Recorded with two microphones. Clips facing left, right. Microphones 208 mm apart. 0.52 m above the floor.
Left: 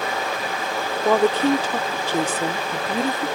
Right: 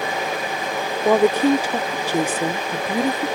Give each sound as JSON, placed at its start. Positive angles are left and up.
{"t": 1.1, "sound": "a woman speaking", "side_deg": -15}